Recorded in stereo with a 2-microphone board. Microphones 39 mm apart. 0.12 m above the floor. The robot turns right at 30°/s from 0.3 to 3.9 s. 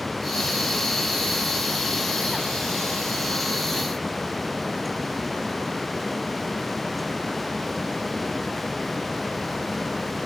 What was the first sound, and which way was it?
Only background noise.